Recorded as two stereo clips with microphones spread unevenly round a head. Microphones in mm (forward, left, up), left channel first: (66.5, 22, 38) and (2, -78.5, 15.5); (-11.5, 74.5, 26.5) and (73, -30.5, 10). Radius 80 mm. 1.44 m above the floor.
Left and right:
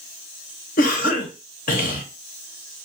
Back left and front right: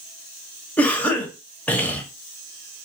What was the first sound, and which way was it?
A cough, 50° left.